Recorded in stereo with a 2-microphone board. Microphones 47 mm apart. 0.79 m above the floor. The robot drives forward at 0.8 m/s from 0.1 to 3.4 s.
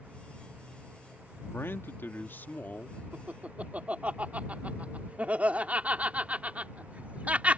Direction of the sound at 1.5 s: 55° left (ahead or behind).